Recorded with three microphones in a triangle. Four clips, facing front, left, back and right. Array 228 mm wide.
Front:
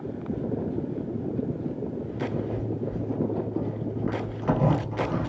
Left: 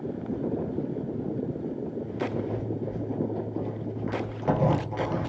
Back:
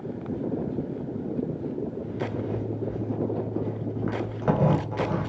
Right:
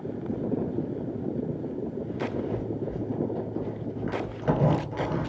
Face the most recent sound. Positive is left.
turn(degrees=170)